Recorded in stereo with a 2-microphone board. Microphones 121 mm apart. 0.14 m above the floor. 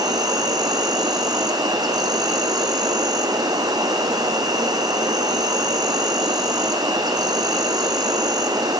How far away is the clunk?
No clunk in this recording.